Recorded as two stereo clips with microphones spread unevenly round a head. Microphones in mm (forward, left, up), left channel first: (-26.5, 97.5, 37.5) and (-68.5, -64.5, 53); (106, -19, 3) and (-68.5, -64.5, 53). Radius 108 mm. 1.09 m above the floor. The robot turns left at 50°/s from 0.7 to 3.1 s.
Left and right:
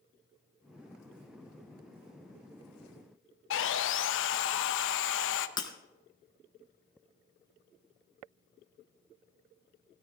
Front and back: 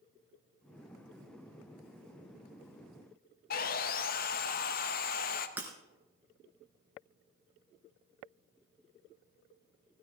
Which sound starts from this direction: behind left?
Breaking glass, at 5.6 s.